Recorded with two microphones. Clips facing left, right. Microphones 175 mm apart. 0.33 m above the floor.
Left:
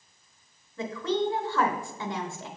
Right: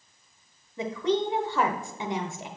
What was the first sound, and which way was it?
A woman speaking, 20° right (ahead or behind).